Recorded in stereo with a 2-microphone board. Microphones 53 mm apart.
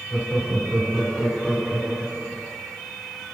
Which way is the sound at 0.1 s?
5° left (ahead or behind).